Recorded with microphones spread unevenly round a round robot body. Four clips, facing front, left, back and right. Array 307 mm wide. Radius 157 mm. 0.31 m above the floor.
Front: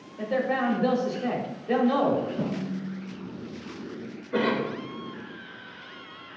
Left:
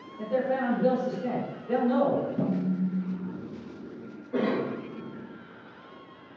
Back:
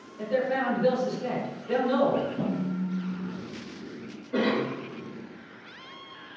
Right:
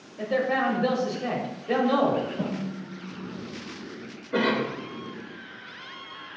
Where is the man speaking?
65° right, 1.4 m.